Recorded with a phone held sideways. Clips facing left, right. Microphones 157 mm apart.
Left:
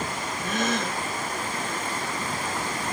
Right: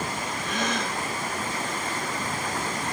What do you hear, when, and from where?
0.4 s a gasp: 50° left (ahead or behind), 9.5 m